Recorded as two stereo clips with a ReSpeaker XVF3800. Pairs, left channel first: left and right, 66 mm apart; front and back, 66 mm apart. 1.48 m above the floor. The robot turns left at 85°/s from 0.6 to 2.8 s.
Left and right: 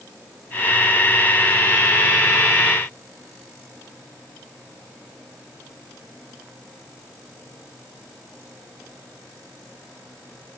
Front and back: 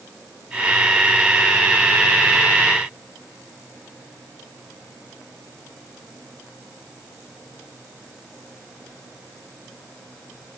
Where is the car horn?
No car horn in this recording.